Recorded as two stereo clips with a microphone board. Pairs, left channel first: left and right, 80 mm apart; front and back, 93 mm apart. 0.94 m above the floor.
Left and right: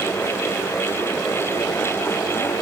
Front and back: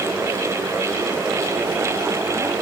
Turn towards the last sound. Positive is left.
No sound to turn to.